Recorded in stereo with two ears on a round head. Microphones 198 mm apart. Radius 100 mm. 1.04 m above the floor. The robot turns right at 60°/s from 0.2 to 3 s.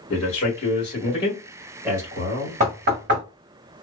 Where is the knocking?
35° right (ahead or behind), 1.2 m; by 3.2 s 55° right (ahead or behind), 1.2 m.